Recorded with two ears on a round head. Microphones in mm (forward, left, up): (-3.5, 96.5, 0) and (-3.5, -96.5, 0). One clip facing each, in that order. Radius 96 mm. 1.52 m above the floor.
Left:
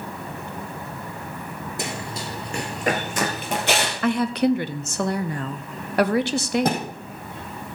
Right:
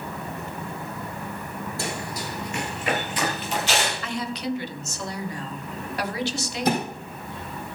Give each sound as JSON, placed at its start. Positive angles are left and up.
{"t": 1.8, "sound": "running footsteps", "side_deg": 15, "distance_m": 1.8}
{"t": 4.0, "sound": "a woman speaking", "side_deg": 45, "distance_m": 0.6}
{"t": 6.7, "sound": "a thud", "side_deg": 45, "distance_m": 4.5}